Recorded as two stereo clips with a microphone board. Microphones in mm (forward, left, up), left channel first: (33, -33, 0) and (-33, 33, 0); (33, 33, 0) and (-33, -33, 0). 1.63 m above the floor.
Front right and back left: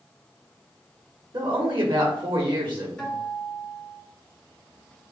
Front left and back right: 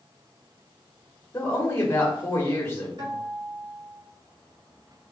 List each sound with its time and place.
1.3 s a woman speaking: 110° left, 1.4 m
3.0 s a guitar: 120° right, 2 m